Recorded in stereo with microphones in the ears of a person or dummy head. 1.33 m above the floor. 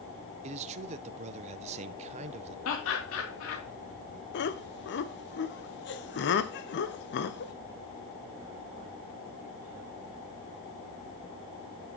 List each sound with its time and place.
0.4 s a man speaking: 40° right (ahead or behind), 0.5 m
2.6 s laughter: 80° left, 2.5 m
4.3 s laughter: 55° left (ahead or behind), 0.9 m